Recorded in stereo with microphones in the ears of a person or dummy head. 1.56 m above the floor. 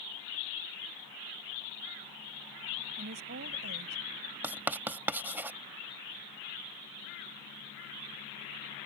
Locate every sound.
3.0 s a woman speaking: 50° right (ahead or behind)
4.4 s writing: 5° right (ahead or behind)